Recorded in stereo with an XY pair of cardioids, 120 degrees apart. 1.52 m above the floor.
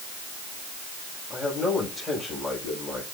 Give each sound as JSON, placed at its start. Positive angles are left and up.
{"t": 1.3, "sound": "a man speaking", "azimuth_deg": 25, "distance_m": 9.0}